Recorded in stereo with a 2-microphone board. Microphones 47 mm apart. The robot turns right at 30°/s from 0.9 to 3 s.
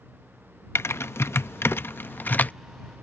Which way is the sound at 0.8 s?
65° left (ahead or behind).